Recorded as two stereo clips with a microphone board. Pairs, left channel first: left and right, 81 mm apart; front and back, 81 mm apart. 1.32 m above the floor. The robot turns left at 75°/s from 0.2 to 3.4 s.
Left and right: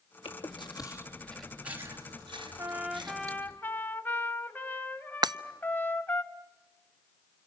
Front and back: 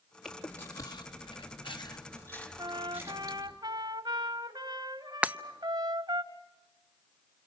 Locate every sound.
0.2 s chewing: 90° left, 3.5 m; by 3.6 s 150° right, 3.5 m
2.6 s a trumpet: 140° right, 1.6 m; by 6.2 s 155° left, 1.6 m
5.2 s breaking glass: 110° right, 0.7 m